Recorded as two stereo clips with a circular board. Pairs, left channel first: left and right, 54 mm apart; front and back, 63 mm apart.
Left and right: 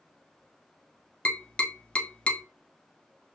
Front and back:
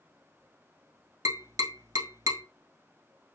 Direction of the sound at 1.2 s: 155° left.